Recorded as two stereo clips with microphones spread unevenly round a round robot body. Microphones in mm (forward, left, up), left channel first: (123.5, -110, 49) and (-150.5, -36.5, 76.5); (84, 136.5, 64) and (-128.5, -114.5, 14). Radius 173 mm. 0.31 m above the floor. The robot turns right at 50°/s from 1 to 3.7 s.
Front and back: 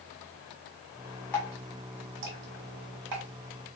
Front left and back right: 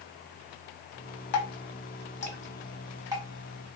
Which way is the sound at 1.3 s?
65° left.